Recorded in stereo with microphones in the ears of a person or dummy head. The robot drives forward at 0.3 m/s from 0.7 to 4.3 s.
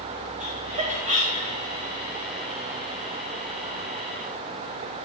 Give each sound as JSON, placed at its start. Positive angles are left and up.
{"t": 0.4, "sound": "laughter", "side_deg": -40, "distance_m": 2.0}